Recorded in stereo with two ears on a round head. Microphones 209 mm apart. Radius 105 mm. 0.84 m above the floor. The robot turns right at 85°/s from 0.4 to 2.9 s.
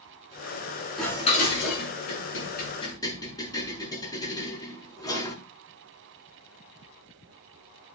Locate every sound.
1.0 s dishes clattering: centre (ahead or behind), 7 m; by 5.4 s 15° left (ahead or behind), 7 m